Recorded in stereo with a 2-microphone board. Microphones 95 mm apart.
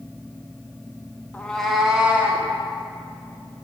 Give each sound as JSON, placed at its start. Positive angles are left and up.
{"t": 1.3, "sound": "a cat meowing", "side_deg": 15, "distance_m": 0.5}